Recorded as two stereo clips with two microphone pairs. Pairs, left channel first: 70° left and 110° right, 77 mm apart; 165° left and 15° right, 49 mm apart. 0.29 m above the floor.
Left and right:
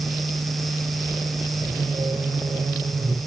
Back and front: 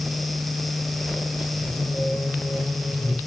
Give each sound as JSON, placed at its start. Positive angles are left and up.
{"t": 1.6, "sound": "singing", "azimuth_deg": -145, "distance_m": 5.0}